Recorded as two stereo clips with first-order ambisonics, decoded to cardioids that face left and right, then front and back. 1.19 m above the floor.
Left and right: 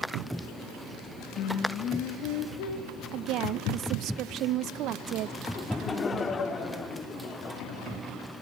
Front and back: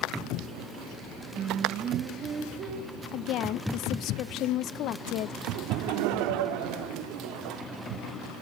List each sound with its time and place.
1.4 s singing: 125° left, 2 m
3.1 s a woman speaking: 45° right, 0.7 m
5.5 s laughter: 160° left, 2.5 m